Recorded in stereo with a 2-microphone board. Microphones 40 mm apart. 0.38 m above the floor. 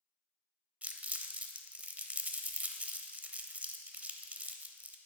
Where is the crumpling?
35° right (ahead or behind), 0.8 m.